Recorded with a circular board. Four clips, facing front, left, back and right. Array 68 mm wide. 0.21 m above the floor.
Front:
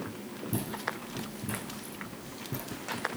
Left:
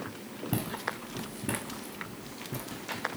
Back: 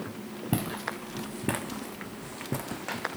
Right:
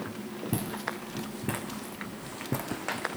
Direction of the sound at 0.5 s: 175° left.